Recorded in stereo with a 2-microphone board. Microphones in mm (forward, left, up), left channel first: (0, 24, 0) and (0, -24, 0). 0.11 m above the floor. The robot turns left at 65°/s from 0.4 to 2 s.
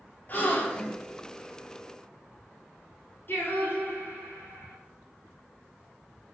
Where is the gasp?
130° left, 0.9 m; by 1.0 s 95° left, 0.9 m.